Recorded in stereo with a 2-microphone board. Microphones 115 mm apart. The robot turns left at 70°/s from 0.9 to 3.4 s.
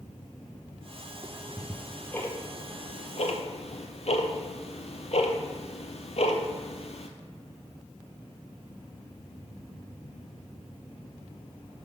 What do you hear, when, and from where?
1.2 s ticking: 45° right (ahead or behind), 0.8 m; by 7.1 s 65° left (ahead or behind), 0.8 m